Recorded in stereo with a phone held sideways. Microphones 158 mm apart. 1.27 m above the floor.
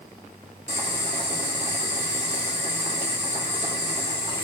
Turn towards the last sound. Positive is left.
turn(degrees=-45)  # may be behind; listen again after turning